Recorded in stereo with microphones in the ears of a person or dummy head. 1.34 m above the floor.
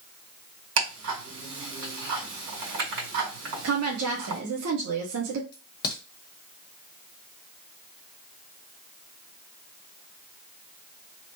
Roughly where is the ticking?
Right.